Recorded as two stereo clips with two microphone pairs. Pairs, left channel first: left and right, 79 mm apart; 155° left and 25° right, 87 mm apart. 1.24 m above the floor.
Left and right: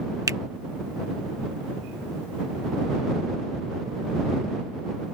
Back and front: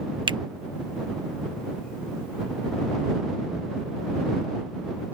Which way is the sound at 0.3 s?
45° right.